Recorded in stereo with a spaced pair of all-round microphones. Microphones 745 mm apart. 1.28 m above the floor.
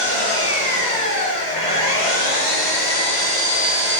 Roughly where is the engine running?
Right.